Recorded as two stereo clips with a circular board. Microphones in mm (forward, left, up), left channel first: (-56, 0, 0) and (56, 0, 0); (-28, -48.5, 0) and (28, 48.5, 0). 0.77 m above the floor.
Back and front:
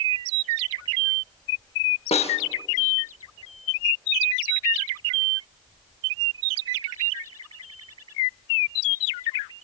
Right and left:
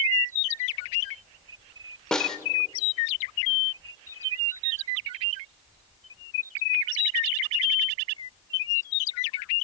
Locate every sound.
2.1 s a snare drum: 155° left, 0.8 m